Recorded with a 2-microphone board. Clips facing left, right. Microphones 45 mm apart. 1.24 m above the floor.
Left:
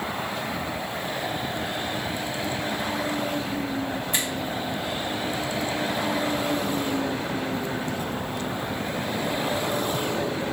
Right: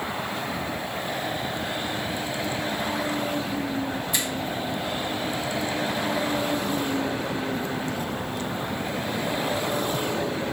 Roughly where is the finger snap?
Left.